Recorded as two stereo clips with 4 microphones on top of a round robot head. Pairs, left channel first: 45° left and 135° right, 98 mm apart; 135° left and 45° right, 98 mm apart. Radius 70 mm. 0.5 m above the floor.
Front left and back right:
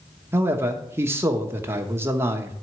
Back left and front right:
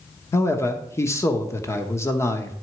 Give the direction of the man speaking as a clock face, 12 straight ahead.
6 o'clock.